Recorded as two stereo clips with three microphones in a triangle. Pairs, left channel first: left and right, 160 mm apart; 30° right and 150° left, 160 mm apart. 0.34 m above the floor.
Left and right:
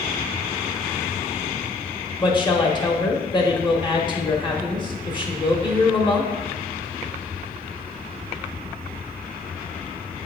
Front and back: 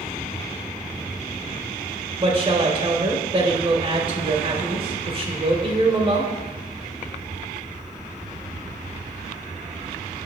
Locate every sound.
2.2 s a woman speaking: 125° left, 0.9 m